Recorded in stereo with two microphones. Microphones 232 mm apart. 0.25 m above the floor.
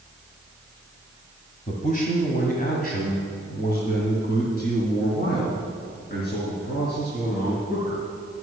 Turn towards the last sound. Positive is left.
turn(degrees=40)  # may be behind; listen again after turning